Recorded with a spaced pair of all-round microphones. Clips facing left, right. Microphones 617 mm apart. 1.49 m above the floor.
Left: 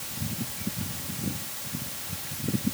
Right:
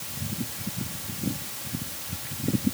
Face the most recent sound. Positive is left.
No sound to turn to.